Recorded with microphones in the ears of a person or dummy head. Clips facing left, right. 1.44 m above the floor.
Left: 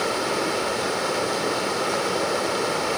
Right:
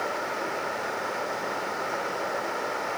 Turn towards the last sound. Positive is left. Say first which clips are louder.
# left 7 dB
turn(degrees=50)  # may be behind; listen again after turning